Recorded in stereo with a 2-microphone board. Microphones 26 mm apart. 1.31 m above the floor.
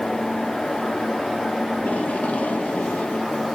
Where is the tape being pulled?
75° left (ahead or behind), 3 m.